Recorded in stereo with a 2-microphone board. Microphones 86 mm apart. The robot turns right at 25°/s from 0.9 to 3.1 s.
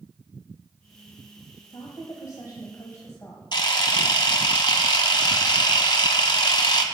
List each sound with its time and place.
1.7 s a woman speaking: 95° left, 1.3 m; by 3.4 s 130° left, 1.3 m
3.5 s a camera shutter: 65° left (ahead or behind), 0.9 m